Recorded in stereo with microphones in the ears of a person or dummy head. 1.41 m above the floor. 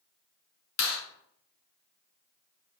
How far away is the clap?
About 2.5 m.